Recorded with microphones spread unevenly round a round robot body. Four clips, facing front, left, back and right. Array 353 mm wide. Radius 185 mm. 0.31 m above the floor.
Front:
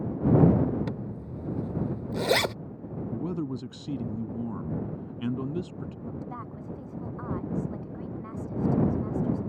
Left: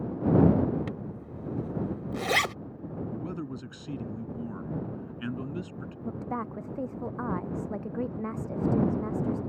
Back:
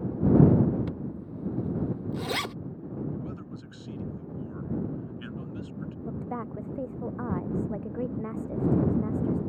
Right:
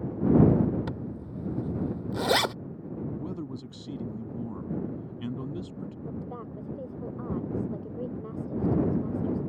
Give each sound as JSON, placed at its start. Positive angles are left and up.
{"t": 0.9, "sound": "a zipper", "azimuth_deg": -10}
{"t": 3.1, "sound": "a man speaking", "azimuth_deg": 5}
{"t": 6.0, "sound": "a woman speaking", "azimuth_deg": 130}